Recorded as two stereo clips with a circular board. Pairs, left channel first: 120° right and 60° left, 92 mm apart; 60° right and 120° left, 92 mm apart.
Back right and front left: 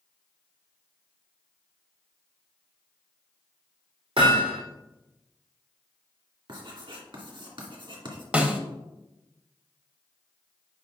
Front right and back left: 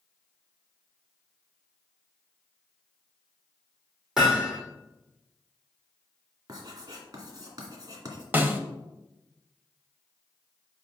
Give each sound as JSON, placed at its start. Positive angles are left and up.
{"t": 4.2, "sound": "hammering", "azimuth_deg": 35, "distance_m": 3.5}
{"t": 6.5, "sound": "writing", "azimuth_deg": 75, "distance_m": 2.0}
{"t": 8.3, "sound": "a snare drum", "azimuth_deg": 105, "distance_m": 1.0}